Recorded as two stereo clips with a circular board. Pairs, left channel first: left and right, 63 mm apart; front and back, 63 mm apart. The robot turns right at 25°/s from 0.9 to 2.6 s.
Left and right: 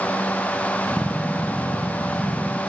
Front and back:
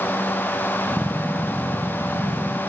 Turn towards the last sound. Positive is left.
No sound to turn to.